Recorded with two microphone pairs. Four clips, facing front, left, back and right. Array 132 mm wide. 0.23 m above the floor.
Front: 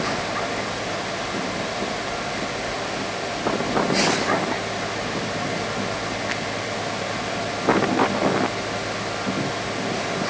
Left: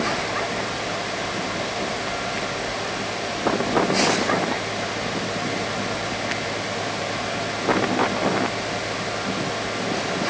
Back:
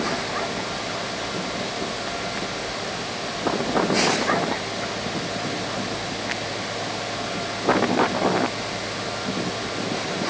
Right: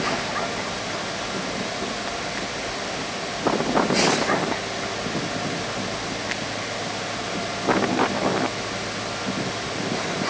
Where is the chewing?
I don't hear chewing.